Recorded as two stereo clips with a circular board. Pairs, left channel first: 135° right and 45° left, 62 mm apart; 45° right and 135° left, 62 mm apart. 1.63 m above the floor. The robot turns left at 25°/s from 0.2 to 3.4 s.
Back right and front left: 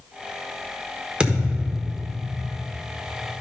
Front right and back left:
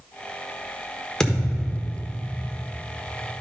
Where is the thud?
15° left, 1.3 m; by 2.2 s 10° right, 1.3 m.